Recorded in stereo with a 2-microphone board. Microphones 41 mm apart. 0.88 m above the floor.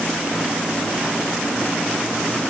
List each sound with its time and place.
Only background noise.